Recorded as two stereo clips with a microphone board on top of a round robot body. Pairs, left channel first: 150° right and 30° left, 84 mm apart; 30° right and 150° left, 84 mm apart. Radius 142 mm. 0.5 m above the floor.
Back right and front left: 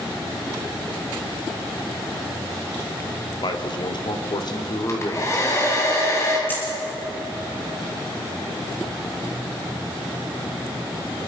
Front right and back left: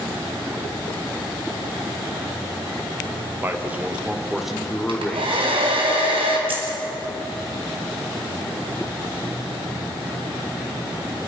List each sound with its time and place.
3.4 s a man speaking: 150° right, 2 m; by 5.5 s 105° right, 3 m
4.9 s a hair dryer: 155° left, 4 m
6.5 s a dropped coin: 145° left, 5 m